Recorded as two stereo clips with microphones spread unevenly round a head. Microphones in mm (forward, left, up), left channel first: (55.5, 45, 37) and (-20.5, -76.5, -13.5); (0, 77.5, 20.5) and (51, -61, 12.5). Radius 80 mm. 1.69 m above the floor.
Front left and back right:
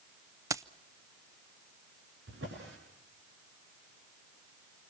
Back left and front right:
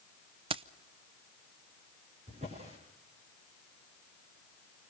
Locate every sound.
0.5 s keys jangling: 35° right, 0.6 m
2.3 s a drawer: 125° right, 7 m